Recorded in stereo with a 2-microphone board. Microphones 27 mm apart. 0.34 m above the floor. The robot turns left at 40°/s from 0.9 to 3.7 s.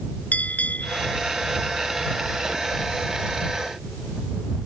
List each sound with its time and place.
0.3 s a bell: 75° left (ahead or behind); by 1.1 s 70° left (ahead or behind)